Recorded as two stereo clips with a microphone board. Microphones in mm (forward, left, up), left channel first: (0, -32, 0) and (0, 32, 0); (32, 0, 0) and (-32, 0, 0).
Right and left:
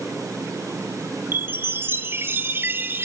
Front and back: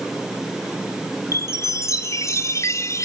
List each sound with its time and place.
1.3 s a chime: 35° left, 0.9 m